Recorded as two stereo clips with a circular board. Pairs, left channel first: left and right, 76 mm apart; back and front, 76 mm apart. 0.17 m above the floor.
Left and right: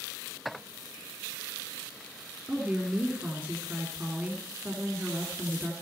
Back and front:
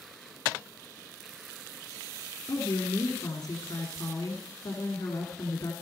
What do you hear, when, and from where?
2.5 s a woman speaking: 155° right, 2 m